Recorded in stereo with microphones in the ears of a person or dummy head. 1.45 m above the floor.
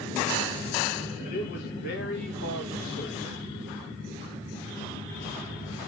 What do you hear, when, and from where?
1.2 s a man speaking: 50° left (ahead or behind), 1.8 m; by 3.4 s 75° left (ahead or behind), 2.5 m